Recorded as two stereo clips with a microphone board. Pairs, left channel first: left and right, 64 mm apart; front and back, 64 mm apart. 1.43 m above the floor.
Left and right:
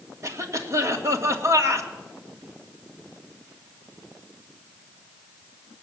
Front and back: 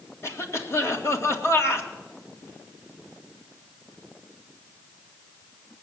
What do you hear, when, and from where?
0.2 s a cough: 50° right, 2 m